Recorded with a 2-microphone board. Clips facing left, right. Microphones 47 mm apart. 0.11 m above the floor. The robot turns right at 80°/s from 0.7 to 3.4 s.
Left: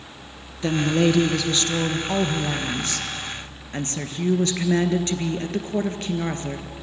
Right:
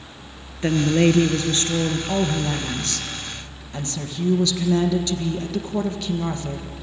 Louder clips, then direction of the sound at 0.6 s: Right 2 dB; 130° right.